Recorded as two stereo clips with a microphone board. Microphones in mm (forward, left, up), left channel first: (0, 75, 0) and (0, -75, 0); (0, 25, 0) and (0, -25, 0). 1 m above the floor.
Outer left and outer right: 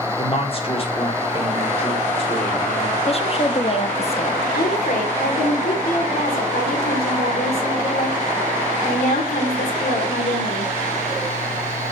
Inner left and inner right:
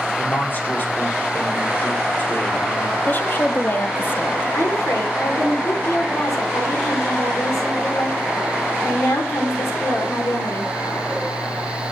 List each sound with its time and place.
0.2 s a man speaking: 40° left (ahead or behind), 2 m
3.1 s a woman speaking: 40° left (ahead or behind), 1.2 m
4.5 s a woman speaking: 80° left, 3 m